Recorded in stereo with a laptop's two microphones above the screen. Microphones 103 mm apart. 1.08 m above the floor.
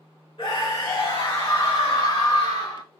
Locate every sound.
0.4 s a scream: 50° left (ahead or behind), 1.7 m; by 2.8 s 55° left (ahead or behind), 0.7 m